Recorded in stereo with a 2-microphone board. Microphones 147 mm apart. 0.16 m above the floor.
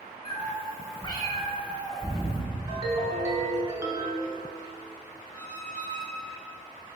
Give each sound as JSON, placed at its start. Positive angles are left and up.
{"t": 0.2, "sound": "a cat meowing", "side_deg": 40, "distance_m": 0.8}
{"t": 2.7, "sound": "a ringtone", "side_deg": -25, "distance_m": 0.9}
{"t": 5.3, "sound": "a squeak", "side_deg": 5, "distance_m": 1.1}